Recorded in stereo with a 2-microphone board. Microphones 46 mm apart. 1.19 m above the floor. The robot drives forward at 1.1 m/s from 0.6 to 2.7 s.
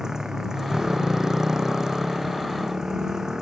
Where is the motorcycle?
15° right (ahead or behind).